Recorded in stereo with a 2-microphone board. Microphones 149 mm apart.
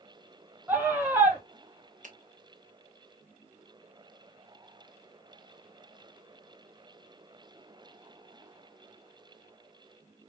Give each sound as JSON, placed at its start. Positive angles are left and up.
{"t": 0.7, "sound": "a scream", "side_deg": -15, "distance_m": 1.0}
{"t": 2.0, "sound": "a finger snap", "side_deg": -55, "distance_m": 0.8}